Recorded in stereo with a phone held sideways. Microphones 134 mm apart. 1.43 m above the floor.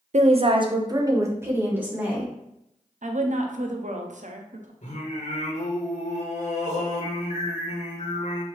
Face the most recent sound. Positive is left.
turn(degrees=60)  # may be behind; listen again after turning